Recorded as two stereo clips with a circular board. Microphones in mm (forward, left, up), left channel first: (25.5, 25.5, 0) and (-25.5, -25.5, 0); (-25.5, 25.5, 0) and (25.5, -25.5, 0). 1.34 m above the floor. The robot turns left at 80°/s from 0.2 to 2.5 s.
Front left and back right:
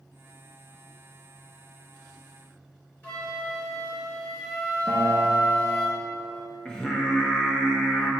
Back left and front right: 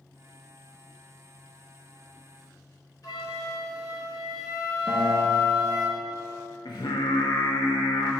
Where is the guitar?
160° left, 1.1 m.